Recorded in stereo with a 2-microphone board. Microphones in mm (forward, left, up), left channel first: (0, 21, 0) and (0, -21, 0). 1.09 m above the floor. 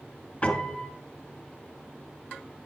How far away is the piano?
About 2 m.